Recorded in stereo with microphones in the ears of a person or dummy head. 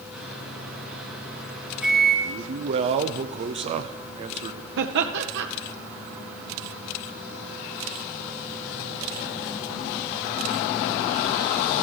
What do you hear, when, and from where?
0.1 s a microwave: 5° right (ahead or behind), 2.5 m
2.2 s a man speaking: 30° right (ahead or behind), 0.5 m
4.8 s laughter: 65° right (ahead or behind), 0.7 m